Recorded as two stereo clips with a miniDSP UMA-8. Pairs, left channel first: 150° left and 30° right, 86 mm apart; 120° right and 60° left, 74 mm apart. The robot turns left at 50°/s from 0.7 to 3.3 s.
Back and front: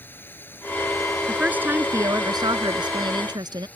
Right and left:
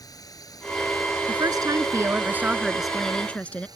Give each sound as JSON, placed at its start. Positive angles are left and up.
{"t": 0.0, "sound": "a drone", "azimuth_deg": -145}
{"t": 1.3, "sound": "a woman speaking", "azimuth_deg": 50}